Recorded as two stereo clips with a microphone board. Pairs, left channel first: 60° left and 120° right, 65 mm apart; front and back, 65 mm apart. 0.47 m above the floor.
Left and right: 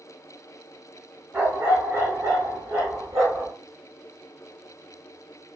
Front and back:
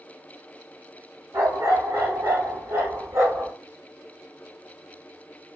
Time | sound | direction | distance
1.3 | a dog barking | straight behind | 1.3 m